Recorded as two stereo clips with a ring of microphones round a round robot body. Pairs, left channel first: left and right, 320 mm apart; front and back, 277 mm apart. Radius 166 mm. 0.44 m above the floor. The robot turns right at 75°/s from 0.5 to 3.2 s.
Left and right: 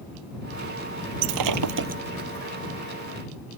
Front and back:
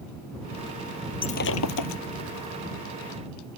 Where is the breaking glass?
75° right; by 2.0 s 15° right.